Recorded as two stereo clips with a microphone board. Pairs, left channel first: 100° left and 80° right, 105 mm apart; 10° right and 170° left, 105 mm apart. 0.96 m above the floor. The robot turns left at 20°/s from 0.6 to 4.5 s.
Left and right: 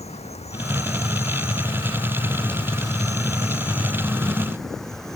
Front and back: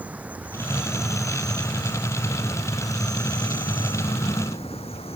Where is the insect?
95° left; by 5.2 s 15° left.